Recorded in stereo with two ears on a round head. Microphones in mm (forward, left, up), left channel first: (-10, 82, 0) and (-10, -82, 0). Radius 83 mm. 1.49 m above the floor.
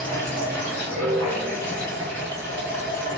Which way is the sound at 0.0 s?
10° left (ahead or behind).